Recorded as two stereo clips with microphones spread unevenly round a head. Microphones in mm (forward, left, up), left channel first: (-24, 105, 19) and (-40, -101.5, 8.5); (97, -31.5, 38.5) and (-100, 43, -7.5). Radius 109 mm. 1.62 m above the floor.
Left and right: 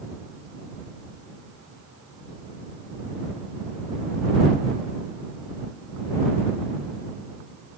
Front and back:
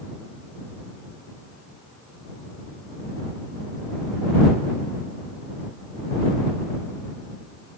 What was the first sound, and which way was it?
Only background noise.